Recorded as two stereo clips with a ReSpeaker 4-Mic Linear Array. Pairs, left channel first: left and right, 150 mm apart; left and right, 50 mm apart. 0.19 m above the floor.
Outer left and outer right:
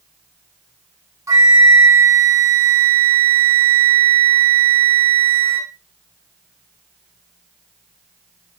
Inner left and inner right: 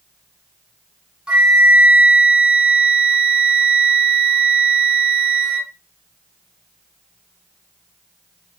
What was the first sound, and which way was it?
A flute, 20° right (ahead or behind).